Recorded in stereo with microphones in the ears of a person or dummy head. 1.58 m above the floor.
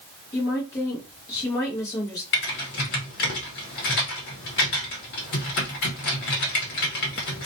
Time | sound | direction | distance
0.3 | a woman speaking | 25° left (ahead or behind) | 0.7 m
2.3 | typing on a keyboard | 50° left (ahead or behind) | 0.9 m